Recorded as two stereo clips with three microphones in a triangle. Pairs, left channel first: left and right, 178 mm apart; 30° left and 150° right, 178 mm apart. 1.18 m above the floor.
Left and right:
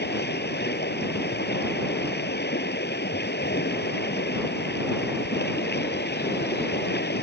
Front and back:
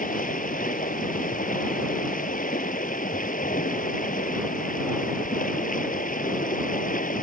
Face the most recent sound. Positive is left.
turn(degrees=70)